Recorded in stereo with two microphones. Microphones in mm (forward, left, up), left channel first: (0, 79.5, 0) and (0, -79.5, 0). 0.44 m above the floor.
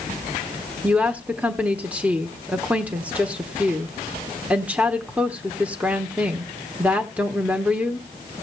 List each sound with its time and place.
0.8 s a woman speaking: 10° right (ahead or behind), 1.0 m